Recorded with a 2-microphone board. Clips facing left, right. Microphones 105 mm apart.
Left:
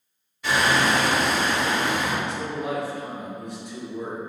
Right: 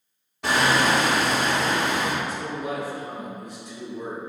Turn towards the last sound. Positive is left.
turn(degrees=65)  # may be behind; listen again after turning